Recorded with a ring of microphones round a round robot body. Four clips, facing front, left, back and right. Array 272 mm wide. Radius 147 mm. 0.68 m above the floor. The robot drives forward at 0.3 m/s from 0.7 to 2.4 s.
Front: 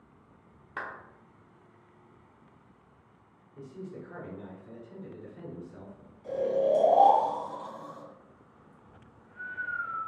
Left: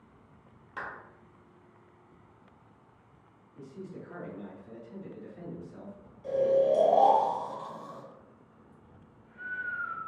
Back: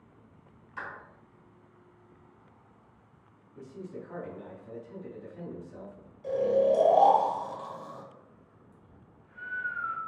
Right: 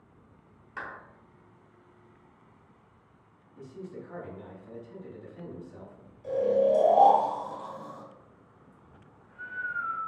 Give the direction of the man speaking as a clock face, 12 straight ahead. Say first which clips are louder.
Right 2 dB, even; 5 o'clock.